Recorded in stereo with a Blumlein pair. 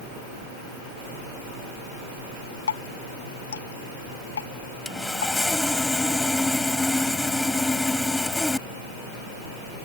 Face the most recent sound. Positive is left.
turn(degrees=5)